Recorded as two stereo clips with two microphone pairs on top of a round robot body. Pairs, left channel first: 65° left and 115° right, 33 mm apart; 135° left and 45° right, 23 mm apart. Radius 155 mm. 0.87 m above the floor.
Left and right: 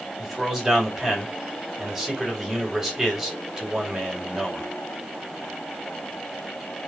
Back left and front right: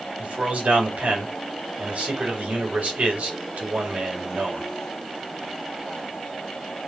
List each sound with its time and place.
0.2 s a man speaking: 40° right, 4 m